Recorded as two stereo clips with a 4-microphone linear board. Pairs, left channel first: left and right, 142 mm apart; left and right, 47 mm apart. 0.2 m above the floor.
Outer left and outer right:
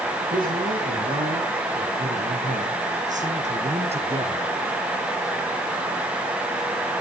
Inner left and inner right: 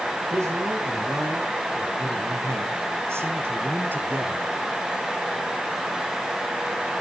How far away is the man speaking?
About 6 m.